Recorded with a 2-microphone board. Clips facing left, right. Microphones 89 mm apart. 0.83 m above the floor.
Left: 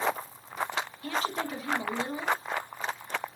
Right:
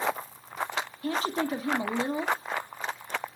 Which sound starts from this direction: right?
A woman speaking, at 1.0 s.